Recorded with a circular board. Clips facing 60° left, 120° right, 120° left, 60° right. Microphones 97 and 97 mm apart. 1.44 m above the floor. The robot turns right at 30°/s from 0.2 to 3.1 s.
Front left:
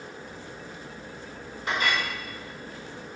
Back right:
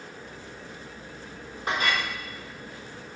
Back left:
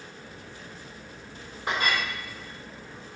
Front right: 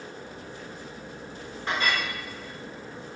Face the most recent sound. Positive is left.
turn(degrees=-120)